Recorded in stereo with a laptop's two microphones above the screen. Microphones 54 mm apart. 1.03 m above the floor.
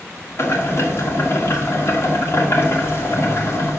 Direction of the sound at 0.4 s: 45° left (ahead or behind).